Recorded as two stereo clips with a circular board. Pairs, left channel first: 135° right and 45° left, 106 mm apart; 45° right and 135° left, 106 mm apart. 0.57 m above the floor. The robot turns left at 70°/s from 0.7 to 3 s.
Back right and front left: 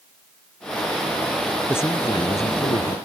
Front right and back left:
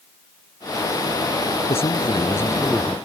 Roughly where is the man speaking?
Ahead right.